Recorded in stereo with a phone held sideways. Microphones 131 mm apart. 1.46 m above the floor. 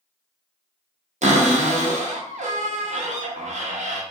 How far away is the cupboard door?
About 0.6 m.